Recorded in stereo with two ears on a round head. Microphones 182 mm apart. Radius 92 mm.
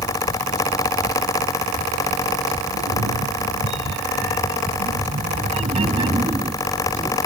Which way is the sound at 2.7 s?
80° right.